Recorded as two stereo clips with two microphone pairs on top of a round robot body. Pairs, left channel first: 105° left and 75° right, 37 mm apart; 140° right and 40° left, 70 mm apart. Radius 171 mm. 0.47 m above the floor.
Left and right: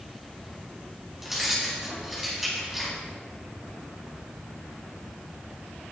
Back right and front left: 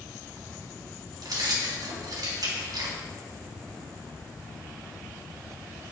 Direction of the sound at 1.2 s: 5° left.